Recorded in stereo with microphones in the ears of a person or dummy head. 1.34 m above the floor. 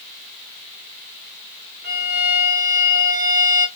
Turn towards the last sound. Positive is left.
turn(degrees=-50)  # may be behind; listen again after turning